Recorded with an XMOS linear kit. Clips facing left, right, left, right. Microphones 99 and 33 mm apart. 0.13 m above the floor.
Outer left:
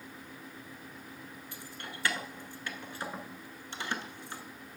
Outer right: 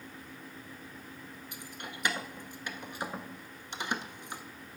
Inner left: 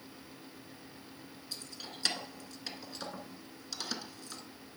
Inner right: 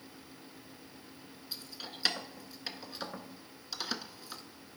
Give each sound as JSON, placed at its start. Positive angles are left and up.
{"t": 1.5, "sound": "keys jangling", "side_deg": -20, "distance_m": 0.8}